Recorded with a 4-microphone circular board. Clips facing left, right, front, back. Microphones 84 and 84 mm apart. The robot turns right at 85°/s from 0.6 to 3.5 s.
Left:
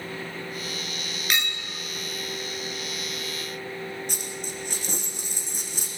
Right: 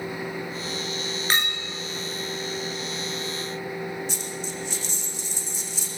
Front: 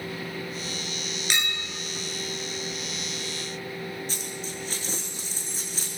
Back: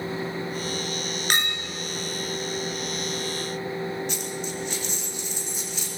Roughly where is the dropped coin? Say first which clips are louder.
Right 2 dB, back 5 dB; ahead left.